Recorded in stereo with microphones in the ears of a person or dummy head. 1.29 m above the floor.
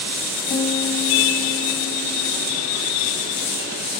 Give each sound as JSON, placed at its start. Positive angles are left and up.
{"t": 0.5, "sound": "a piano", "side_deg": 60, "distance_m": 1.8}